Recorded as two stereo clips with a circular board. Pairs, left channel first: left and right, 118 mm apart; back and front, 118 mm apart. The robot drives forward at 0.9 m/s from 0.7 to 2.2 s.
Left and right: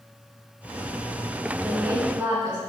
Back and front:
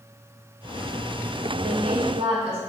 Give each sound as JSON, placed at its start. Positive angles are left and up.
{"t": 1.6, "sound": "a woman speaking", "azimuth_deg": -25, "distance_m": 2.5}